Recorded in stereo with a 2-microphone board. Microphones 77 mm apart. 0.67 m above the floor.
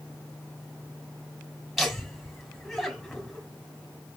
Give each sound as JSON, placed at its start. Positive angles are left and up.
{"t": 1.8, "sound": "laughter", "side_deg": 0, "distance_m": 3.5}